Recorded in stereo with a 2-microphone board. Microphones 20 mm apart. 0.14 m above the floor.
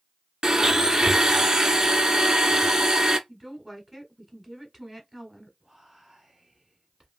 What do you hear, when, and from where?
0.4 s a blender: 35° right (ahead or behind), 0.6 m
3.3 s a woman speaking: 20° right (ahead or behind), 1.2 m
5.6 s whispering: 25° right (ahead or behind), 1.2 m